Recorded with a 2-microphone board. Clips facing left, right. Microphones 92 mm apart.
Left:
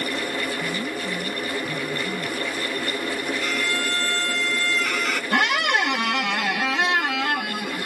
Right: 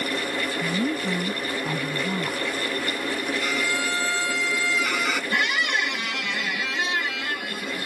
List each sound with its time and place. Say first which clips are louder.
0.6 s a woman speaking: right 3 dB; 60° right (ahead or behind)
3.4 s a violin: even; 5° right (ahead or behind)
5.3 s a squeak: left 7 dB; 70° left (ahead or behind)